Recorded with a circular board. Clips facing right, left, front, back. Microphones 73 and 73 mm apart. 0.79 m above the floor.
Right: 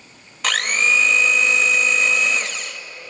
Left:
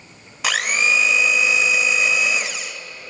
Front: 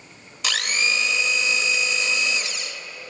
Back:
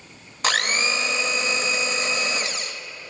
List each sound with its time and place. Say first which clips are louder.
0.4 s a blender: even, back 2 dB; 170° left, 0.6 m